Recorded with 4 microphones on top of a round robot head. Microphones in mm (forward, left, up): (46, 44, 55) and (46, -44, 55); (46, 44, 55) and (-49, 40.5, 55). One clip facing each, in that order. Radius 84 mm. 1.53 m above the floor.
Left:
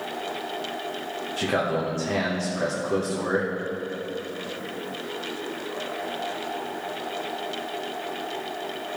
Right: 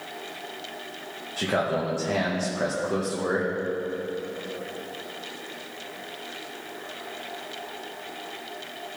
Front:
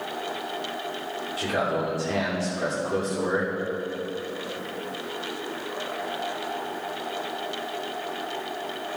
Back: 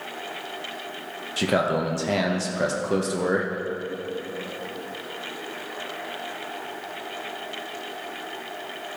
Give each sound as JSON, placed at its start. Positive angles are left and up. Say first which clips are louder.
{"t": 1.4, "sound": "a man speaking", "louder": "even, back 4 dB", "azimuth_deg": -175, "distance_m": 1.1}